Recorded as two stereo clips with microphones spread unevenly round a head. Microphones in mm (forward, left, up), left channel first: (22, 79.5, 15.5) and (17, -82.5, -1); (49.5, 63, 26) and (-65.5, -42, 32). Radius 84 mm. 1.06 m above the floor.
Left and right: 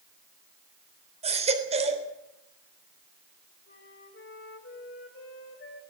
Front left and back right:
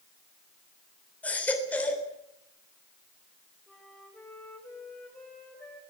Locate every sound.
1.2 s a baby crying: 40° right, 3.5 m
3.7 s a flute: 125° left, 5.5 m